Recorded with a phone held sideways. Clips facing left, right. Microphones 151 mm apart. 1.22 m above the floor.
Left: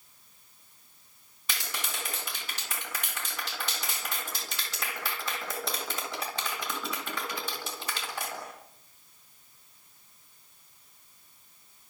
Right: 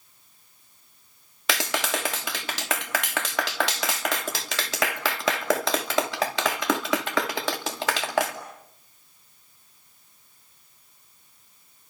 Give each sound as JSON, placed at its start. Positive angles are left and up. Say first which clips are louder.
{"t": 1.5, "sound": "a clap", "louder": "right 12 dB", "side_deg": -75, "distance_m": 2.5}